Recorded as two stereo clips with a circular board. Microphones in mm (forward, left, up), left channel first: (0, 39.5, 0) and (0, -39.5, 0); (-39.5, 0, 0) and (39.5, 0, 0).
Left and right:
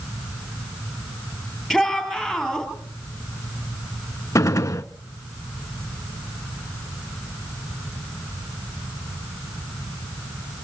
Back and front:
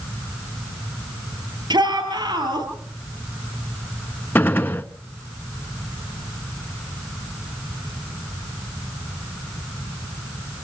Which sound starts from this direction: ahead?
A shout, at 1.7 s.